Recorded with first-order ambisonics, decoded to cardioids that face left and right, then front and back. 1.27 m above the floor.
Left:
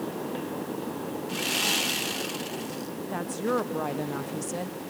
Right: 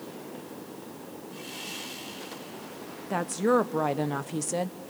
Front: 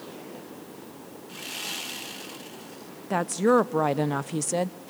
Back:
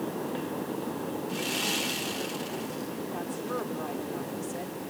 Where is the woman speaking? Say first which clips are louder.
Right 4 dB, front 15 dB; 20° right, 0.5 m.